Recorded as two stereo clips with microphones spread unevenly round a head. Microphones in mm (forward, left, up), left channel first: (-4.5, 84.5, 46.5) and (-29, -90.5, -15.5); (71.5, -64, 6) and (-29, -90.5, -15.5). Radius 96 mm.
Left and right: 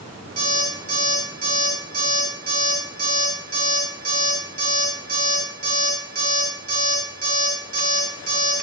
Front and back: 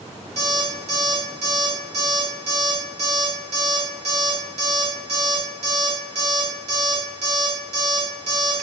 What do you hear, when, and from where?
0.4 s an alarm clock: 150° right, 1.1 m